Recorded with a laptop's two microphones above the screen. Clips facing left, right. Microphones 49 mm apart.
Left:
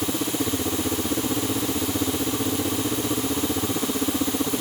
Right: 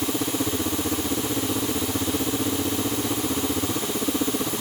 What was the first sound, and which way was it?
Only background noise.